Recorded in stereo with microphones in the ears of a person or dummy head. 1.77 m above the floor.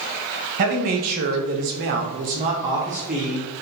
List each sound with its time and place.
0.6 s a man speaking: 50° right (ahead or behind), 1.1 m; by 3.5 s centre (ahead or behind), 0.9 m